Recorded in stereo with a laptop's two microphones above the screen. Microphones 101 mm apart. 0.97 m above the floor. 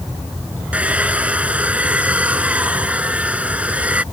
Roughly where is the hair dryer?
Centre.